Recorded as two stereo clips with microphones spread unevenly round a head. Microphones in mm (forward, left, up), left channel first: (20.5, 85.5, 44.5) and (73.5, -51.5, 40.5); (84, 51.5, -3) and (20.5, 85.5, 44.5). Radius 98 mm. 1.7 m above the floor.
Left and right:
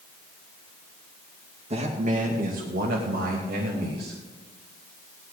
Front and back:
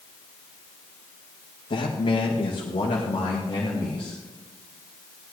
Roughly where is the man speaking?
Ahead.